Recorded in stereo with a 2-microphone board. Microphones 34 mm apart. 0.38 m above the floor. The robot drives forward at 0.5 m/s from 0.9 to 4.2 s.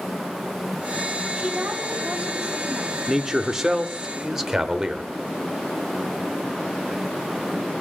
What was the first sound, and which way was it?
A woman speaking, 25° right (ahead or behind).